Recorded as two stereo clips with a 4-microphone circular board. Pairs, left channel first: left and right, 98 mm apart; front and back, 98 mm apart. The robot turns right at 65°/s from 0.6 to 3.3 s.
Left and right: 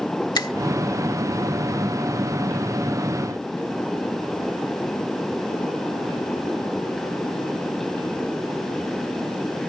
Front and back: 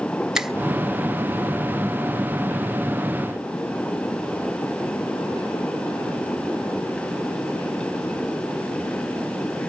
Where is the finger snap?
100° left, 1.0 m.